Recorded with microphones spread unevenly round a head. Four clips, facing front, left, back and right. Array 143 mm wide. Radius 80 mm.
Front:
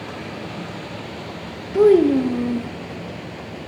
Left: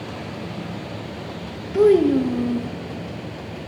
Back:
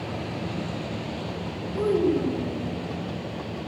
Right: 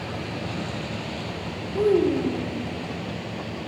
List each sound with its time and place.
1.7 s a child speaking: 20° left, 0.6 m